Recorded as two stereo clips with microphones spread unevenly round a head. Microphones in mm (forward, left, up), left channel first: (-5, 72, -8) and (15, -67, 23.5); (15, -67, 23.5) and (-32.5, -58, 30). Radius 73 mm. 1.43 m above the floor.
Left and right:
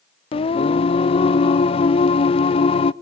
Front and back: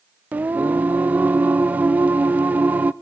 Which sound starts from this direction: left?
Singing, at 0.3 s.